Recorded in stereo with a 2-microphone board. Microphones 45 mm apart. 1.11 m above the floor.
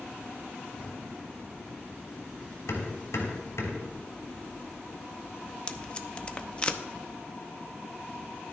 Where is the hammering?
75° left (ahead or behind), 3 m.